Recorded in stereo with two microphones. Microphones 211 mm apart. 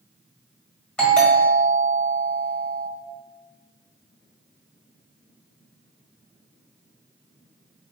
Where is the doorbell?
5° left (ahead or behind), 1.6 m.